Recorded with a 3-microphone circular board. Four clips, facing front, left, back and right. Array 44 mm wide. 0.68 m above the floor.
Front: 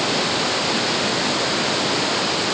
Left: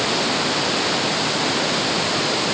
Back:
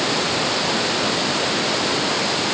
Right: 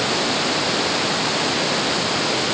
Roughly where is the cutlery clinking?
No cutlery clinking in this recording.